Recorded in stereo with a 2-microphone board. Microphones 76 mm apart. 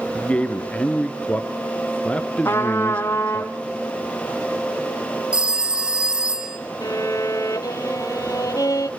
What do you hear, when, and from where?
0.1 s a man speaking: 15° left (ahead or behind), 1.7 m
2.5 s a trumpet: 30° left (ahead or behind), 2.5 m
5.3 s a phone ringing: 15° right (ahead or behind), 2.5 m
6.8 s a violin: 55° left (ahead or behind), 1.3 m